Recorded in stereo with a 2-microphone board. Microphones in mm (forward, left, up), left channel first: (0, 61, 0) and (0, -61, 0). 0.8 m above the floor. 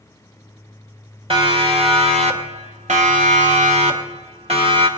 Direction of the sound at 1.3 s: 45° right (ahead or behind).